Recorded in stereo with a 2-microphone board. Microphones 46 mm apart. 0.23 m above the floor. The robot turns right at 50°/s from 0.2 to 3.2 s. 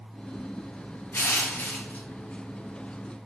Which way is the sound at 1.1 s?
90° left.